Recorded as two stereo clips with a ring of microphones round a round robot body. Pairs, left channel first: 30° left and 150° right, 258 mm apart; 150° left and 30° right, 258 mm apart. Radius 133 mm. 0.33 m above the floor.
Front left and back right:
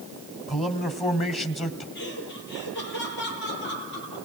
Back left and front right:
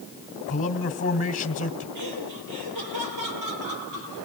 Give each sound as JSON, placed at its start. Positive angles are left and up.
{"t": 0.5, "sound": "a man speaking", "azimuth_deg": 95, "distance_m": 2.0}
{"t": 1.9, "sound": "laughter", "azimuth_deg": -20, "distance_m": 10.0}